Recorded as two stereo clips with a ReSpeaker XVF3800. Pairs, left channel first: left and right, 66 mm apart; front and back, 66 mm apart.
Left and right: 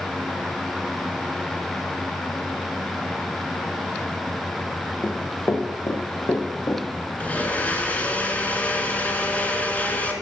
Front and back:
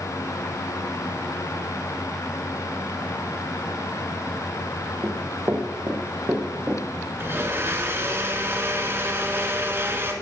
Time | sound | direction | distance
5.0 | running footsteps | 140° left | 2.5 m
7.2 | a blender | 145° left | 2.5 m